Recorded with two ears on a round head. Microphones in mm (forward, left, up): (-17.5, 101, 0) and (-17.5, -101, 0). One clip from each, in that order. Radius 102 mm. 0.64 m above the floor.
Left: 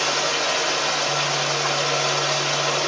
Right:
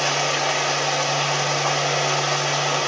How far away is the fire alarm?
I don't hear a fire alarm.